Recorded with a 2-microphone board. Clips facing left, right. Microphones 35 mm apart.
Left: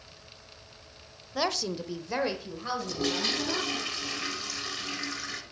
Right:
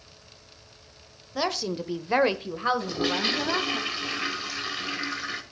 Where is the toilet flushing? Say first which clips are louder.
Right 4 dB; 20° right (ahead or behind), 1.7 m.